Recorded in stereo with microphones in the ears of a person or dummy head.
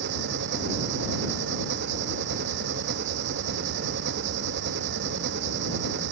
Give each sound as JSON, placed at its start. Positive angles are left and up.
{"t": 0.0, "sound": "an engine running", "side_deg": -60}